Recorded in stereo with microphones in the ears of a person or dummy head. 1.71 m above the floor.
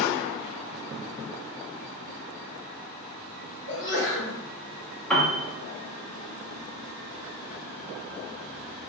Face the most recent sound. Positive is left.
turn(degrees=0)  # may be behind; listen again after turning